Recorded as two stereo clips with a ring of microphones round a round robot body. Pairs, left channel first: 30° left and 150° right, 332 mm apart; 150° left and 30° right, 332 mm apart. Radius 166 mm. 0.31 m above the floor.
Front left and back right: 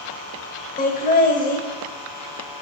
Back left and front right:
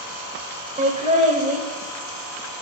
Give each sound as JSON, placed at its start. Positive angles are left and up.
{"t": 0.8, "sound": "laughter", "azimuth_deg": 5, "distance_m": 0.9}